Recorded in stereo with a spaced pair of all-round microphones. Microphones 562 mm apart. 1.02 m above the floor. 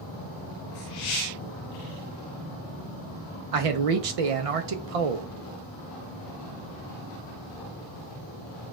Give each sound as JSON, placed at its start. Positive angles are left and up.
{"t": 3.5, "sound": "a man speaking", "side_deg": -75, "distance_m": 0.6}